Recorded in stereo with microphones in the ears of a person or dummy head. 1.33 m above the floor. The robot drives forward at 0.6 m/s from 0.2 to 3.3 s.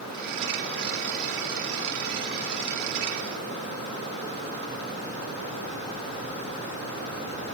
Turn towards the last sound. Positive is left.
No sound to turn to.